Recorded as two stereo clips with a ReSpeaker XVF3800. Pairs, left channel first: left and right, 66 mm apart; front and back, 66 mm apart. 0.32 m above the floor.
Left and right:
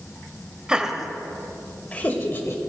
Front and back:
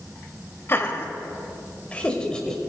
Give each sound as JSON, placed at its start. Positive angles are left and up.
{"t": 0.7, "sound": "laughter", "azimuth_deg": -25, "distance_m": 1.1}